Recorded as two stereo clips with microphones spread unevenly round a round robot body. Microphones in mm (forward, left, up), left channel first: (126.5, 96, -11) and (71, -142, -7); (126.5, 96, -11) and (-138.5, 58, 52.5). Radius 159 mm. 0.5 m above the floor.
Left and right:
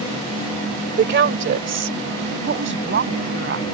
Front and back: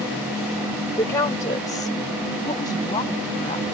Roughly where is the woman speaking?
Ahead right.